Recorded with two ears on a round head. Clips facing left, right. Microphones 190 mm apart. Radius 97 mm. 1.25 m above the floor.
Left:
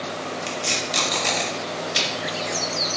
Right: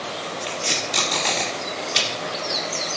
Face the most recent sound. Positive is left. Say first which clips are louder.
# even
turn(degrees=0)  # may be behind; listen again after turning